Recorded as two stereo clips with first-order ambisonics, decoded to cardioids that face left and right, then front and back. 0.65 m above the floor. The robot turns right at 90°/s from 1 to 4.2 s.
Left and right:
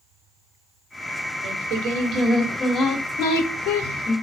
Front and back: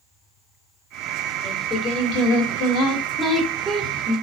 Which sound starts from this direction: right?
Singing, at 1.4 s.